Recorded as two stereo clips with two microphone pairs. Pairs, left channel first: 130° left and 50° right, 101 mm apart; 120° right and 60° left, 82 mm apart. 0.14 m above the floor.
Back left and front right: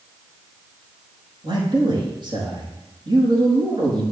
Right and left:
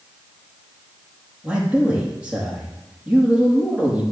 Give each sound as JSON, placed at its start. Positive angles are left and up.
{"t": 1.4, "sound": "a man speaking", "azimuth_deg": -15, "distance_m": 5.0}